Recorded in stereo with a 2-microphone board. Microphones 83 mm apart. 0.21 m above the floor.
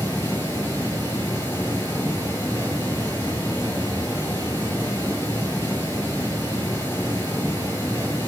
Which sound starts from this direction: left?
Running water, at 0.0 s.